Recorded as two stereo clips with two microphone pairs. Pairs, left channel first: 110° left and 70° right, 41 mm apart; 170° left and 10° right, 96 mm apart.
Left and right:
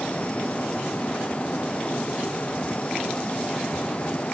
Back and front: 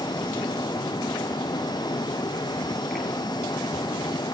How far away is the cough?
I don't hear a cough.